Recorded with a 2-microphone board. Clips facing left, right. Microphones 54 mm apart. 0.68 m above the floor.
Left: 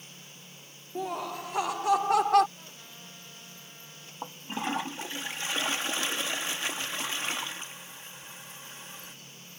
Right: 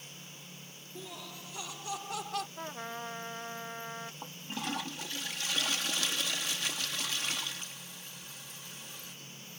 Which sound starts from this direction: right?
A trumpet, at 2.6 s.